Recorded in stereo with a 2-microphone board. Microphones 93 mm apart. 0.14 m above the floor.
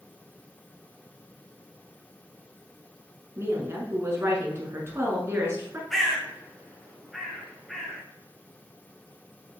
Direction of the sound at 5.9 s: 5° left (ahead or behind).